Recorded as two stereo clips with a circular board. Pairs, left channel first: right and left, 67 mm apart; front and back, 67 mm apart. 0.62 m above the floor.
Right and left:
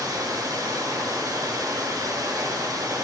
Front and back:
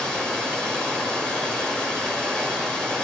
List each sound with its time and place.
0.0 s running water: 75° left, 1.4 m